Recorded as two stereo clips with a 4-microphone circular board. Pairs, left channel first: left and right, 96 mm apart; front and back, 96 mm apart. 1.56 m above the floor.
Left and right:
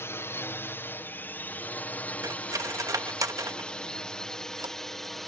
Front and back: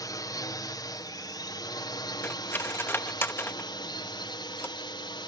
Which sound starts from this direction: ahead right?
Cutlery clinking, at 2.2 s.